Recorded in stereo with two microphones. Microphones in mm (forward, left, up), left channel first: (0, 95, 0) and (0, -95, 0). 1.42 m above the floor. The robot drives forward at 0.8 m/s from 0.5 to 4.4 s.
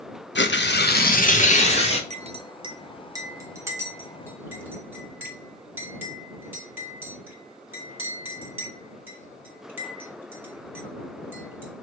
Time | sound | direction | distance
0.3 | tearing paper | 70° left (ahead or behind) | 0.9 m
2.1 | a clink | 35° right (ahead or behind) | 0.7 m